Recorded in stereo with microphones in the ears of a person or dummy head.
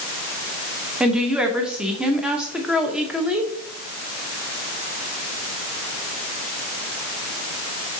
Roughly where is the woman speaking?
Centre.